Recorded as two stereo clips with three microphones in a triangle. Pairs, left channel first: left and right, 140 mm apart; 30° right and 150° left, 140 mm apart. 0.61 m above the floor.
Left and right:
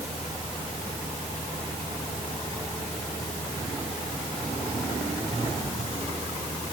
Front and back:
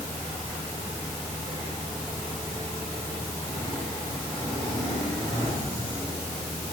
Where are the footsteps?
No footsteps in this recording.